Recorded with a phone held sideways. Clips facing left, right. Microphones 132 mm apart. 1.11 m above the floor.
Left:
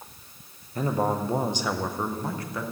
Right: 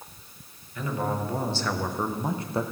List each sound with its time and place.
0.8 s a man speaking: 40° left (ahead or behind), 1.0 m; by 2.6 s 30° right (ahead or behind), 0.7 m